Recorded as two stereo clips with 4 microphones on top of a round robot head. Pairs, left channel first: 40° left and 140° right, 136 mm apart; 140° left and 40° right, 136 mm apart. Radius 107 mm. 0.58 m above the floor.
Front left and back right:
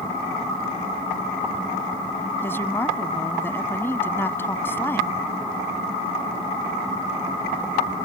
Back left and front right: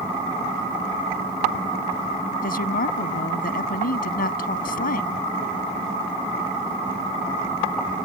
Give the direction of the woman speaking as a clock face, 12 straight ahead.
8 o'clock.